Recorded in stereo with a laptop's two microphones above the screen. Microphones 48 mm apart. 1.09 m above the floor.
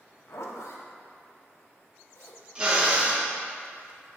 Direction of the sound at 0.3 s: 70° left (ahead or behind).